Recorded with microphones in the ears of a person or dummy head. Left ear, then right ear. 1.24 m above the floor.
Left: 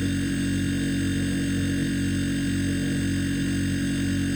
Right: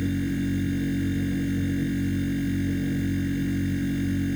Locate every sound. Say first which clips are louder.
0.0 s a machine running: left 1 dB; 35° left (ahead or behind)